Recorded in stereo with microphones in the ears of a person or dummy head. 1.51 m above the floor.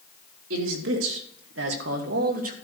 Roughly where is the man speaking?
Right.